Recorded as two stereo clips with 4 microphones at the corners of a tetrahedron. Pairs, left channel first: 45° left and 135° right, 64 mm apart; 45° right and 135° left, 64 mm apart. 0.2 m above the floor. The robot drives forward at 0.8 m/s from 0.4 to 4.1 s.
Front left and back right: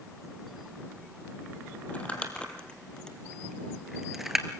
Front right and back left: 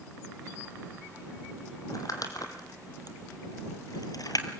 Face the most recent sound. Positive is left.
turn(degrees=-50)